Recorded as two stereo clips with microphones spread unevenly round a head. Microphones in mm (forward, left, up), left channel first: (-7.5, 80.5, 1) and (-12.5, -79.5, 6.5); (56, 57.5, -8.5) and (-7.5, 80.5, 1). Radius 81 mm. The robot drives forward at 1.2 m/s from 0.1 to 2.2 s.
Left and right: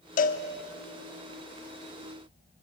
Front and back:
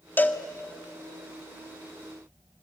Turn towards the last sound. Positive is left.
turn(degrees=150)